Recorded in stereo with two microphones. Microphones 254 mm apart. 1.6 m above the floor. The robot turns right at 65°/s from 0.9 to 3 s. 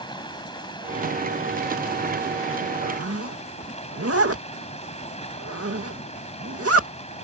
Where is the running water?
20° left; by 7.2 s 155° left.